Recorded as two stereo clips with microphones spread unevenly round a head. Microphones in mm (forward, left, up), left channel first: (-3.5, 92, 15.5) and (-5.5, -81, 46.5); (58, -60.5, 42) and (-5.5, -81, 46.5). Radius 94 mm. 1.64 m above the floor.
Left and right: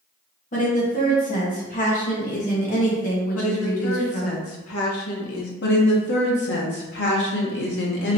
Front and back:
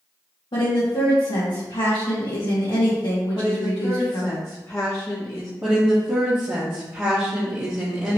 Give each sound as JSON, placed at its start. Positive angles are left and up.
{"t": 0.5, "sound": "a woman speaking", "azimuth_deg": 40, "distance_m": 1.6}
{"t": 3.4, "sound": "a woman speaking", "azimuth_deg": 90, "distance_m": 1.2}
{"t": 5.6, "sound": "a woman speaking", "azimuth_deg": 115, "distance_m": 1.4}